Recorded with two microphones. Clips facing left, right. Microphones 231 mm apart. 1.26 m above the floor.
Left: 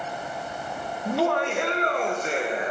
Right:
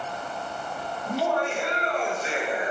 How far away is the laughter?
About 1.0 m.